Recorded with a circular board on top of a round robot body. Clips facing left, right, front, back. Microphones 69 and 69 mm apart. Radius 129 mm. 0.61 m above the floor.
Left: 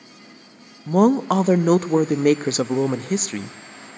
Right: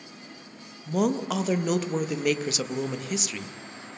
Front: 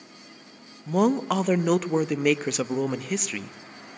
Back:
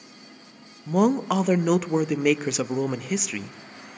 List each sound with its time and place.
0.9 s a woman speaking: 95° left, 0.7 m